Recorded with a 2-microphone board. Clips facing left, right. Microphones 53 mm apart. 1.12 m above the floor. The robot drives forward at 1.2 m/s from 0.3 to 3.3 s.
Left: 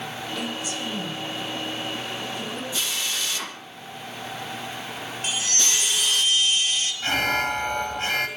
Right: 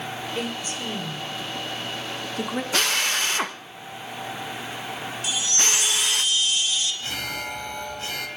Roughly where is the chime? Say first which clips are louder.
Right 1 dB; left.